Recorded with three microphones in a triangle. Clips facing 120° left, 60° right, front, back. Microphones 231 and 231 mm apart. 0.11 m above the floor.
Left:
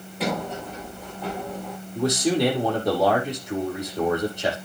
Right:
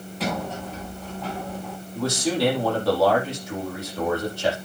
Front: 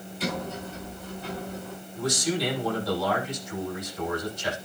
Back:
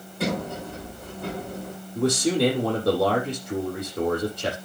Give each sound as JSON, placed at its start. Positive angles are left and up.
{"t": 0.2, "sound": "a sliding door", "azimuth_deg": -160, "distance_m": 6.0}
{"t": 1.9, "sound": "a man speaking", "azimuth_deg": -165, "distance_m": 5.0}